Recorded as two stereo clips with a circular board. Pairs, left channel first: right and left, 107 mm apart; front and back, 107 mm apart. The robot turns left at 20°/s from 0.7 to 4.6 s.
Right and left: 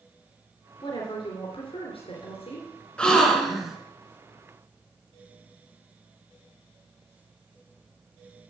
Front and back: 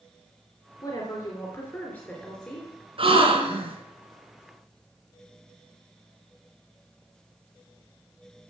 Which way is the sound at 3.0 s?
170° right.